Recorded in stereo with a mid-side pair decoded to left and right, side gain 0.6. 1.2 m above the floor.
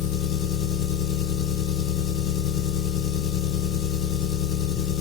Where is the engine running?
70° left, 1.2 m.